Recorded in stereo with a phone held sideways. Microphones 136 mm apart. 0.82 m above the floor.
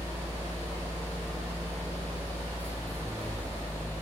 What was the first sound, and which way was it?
A fan, 20° right (ahead or behind).